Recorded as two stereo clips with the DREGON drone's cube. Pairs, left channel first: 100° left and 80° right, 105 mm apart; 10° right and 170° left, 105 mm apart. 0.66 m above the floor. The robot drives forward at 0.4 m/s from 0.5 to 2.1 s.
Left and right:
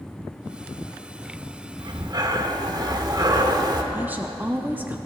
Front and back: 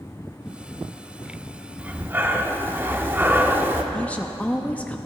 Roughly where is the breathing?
Behind right.